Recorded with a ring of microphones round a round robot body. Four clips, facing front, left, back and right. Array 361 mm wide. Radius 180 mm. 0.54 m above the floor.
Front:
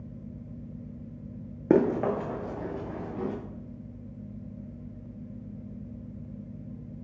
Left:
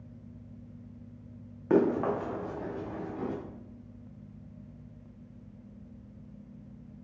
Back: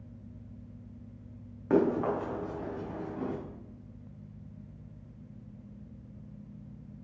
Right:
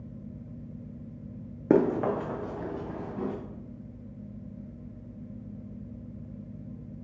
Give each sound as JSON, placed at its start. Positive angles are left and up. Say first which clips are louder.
{"t": 1.7, "sound": "running footsteps", "louder": "right 2 dB, front 3 dB", "azimuth_deg": -45, "distance_m": 1.4}